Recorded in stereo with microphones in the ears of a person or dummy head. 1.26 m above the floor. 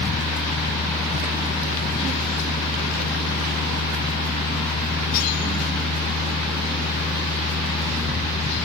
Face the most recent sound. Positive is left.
turn(degrees=65)  # may be behind; listen again after turning